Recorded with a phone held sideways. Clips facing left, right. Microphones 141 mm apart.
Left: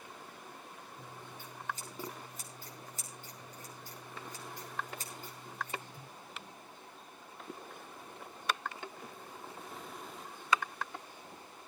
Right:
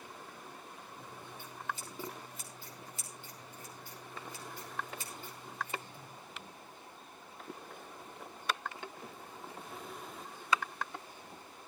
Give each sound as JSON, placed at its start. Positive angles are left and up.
{"t": 1.0, "sound": "scissors", "side_deg": 45, "distance_m": 5.5}